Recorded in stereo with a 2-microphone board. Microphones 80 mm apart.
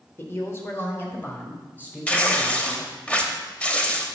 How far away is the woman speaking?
About 1.2 m.